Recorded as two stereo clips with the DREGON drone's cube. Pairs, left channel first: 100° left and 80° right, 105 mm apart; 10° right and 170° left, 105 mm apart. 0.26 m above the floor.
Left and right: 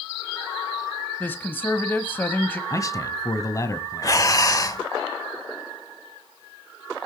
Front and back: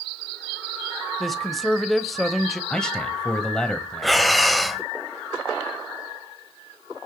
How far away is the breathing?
About 0.8 m.